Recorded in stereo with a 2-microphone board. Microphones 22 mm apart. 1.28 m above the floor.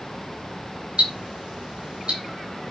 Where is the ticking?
60° right (ahead or behind), 3.5 m.